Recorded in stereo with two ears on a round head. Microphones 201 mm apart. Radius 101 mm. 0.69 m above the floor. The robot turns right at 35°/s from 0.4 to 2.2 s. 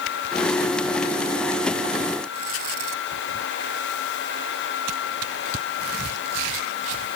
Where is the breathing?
No breathing in this recording.